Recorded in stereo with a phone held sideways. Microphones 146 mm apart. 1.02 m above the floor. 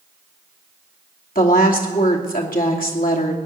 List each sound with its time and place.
1.4 s a woman speaking: 75° left (ahead or behind), 2.5 m